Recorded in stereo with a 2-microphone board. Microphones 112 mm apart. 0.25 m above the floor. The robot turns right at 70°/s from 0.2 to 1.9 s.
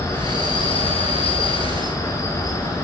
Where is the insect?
30° left, 1.0 m; by 2.9 s 145° left, 1.0 m.